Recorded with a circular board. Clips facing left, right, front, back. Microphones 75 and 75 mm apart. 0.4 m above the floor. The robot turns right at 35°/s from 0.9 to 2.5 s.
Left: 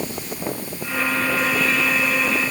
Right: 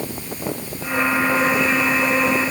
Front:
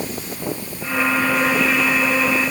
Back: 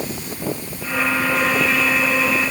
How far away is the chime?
I don't hear a chime.